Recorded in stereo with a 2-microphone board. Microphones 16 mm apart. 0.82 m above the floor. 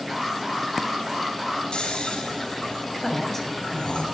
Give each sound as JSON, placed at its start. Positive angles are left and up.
{"t": 0.1, "sound": "an alarm", "side_deg": -20, "distance_m": 5.0}
{"t": 1.7, "sound": "snoring", "side_deg": 85, "distance_m": 5.0}
{"t": 3.0, "sound": "a woman speaking", "side_deg": 15, "distance_m": 6.0}